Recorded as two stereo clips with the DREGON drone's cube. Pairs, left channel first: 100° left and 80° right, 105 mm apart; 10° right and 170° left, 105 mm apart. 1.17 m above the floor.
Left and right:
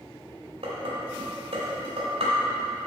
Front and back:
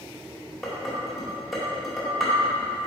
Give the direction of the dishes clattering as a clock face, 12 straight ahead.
3 o'clock.